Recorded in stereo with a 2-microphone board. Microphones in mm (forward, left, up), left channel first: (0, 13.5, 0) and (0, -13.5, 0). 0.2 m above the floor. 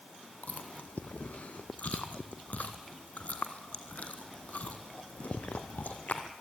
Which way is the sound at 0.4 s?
70° left (ahead or behind).